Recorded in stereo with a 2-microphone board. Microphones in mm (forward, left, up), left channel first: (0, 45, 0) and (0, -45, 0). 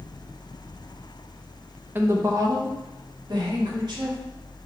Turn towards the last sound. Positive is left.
turn(degrees=-60)  # may be behind; listen again after turning